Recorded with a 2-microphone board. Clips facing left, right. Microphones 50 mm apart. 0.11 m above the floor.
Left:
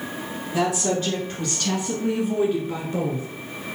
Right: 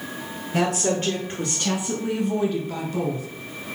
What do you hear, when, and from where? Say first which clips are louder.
0.5 s a woman speaking: even; 45° right (ahead or behind), 1.7 m; by 3.3 s 30° left (ahead or behind), 1.5 m